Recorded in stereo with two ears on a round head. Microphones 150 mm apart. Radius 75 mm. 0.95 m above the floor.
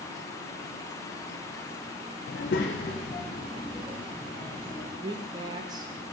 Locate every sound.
2.3 s a child speaking: 50° left (ahead or behind), 0.5 m; by 4.9 s 15° left (ahead or behind), 3 m
5.0 s a woman speaking: 25° right (ahead or behind), 0.5 m